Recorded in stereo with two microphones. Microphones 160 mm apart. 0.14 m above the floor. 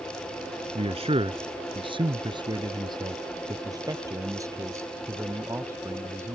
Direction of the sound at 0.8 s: 40° right (ahead or behind).